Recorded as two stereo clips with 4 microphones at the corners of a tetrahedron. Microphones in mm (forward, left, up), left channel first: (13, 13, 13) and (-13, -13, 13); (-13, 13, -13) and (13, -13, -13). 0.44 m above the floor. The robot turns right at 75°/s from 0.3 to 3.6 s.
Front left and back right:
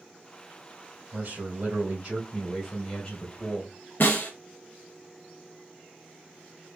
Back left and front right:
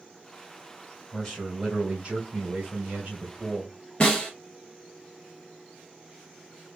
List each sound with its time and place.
1.1 s a man speaking: 155° right, 2 m; by 3.7 s 35° left, 2 m
4.0 s a snare drum: 70° left, 1.5 m